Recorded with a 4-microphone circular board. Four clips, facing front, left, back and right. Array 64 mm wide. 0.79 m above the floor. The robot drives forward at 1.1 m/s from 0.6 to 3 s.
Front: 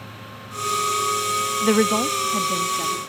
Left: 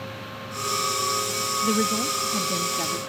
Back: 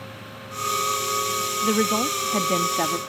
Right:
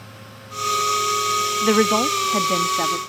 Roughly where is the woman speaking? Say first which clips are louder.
Right 7 dB, front 3 dB; ahead right.